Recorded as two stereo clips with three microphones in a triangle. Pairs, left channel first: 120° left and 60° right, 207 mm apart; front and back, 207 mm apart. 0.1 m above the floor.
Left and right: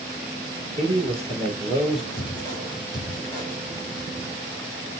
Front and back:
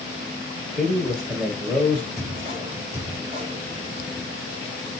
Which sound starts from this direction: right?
A man speaking, at 0.7 s.